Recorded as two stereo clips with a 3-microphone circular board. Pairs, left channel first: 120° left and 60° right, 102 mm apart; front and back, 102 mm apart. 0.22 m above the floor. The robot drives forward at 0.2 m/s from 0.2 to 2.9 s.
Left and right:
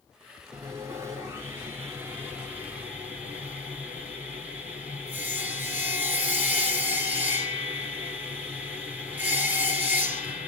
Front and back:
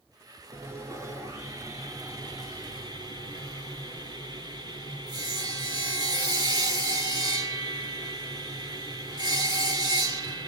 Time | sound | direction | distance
0.5 | sawing | 120° right | 1.3 m